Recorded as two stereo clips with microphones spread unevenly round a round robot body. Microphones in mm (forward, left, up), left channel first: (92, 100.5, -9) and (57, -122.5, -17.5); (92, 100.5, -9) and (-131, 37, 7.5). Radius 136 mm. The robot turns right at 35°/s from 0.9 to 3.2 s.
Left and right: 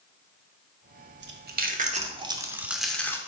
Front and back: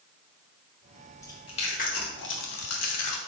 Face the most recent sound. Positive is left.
turn(degrees=5)